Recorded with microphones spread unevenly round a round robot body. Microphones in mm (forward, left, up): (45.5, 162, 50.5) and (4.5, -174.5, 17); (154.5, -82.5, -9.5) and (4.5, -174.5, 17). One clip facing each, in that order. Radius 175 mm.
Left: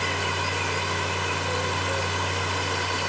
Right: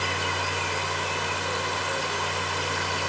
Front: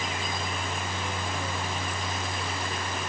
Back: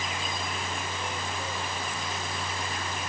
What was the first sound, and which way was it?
Only background noise.